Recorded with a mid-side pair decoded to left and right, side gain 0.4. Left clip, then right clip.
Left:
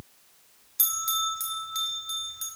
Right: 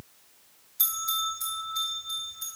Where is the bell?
70° left, 4.5 m.